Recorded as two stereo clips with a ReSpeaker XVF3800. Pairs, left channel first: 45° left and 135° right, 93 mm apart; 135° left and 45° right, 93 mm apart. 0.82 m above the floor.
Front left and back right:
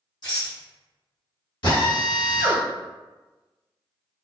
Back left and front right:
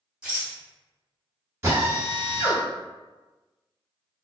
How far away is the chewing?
I don't hear chewing.